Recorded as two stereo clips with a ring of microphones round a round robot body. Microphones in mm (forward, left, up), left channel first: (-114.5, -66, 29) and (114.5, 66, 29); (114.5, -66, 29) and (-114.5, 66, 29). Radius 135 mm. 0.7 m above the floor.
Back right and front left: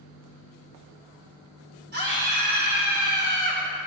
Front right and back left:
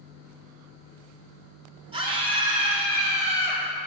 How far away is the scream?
About 2.5 m.